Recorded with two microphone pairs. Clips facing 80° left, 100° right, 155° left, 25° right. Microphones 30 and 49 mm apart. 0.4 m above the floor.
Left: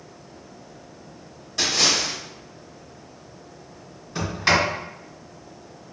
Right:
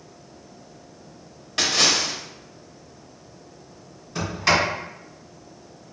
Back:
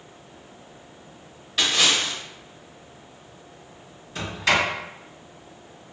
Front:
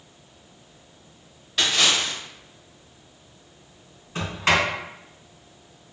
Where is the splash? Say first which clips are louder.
Right 1 dB, even; 120° right, 0.7 m.